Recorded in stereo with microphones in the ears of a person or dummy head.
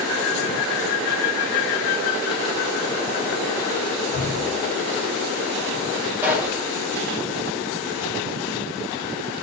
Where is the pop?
10° right (ahead or behind), 5 m.